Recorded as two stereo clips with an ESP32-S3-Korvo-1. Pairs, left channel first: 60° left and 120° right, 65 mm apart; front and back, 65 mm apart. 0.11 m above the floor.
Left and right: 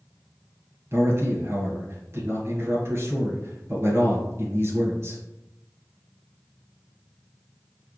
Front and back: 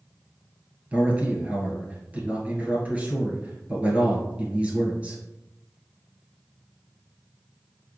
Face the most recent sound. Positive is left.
turn(degrees=-120)